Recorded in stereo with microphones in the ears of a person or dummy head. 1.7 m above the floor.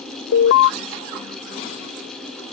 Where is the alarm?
60° left (ahead or behind).